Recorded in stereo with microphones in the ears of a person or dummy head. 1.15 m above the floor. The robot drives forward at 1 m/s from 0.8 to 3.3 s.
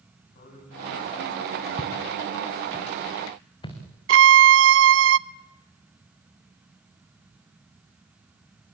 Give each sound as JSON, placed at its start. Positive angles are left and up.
{"t": 0.3, "sound": "a man speaking", "side_deg": 50, "distance_m": 9.5}
{"t": 1.8, "sound": "footsteps", "side_deg": 25, "distance_m": 2.0}
{"t": 4.1, "sound": "a violin", "side_deg": -75, "distance_m": 0.6}